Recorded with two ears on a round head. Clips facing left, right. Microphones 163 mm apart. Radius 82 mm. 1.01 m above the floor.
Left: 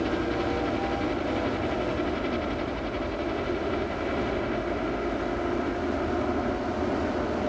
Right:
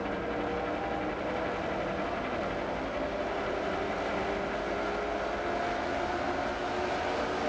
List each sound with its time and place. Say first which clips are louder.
0.0 s a helicopter: left 6 dB; 60° left (ahead or behind)